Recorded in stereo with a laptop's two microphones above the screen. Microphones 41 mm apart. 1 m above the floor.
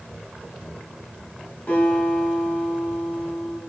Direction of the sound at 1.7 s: 50° left (ahead or behind).